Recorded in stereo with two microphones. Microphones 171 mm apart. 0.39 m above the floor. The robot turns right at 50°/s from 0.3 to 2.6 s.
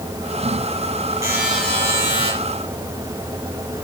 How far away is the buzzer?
About 7.5 m.